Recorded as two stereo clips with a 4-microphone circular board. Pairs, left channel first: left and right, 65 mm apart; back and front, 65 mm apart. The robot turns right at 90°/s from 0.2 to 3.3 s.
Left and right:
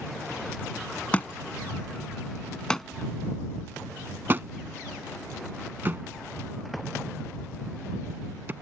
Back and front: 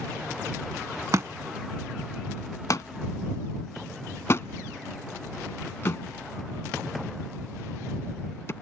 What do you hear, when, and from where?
1.1 s a thud: 25° left; by 8.5 s 140° right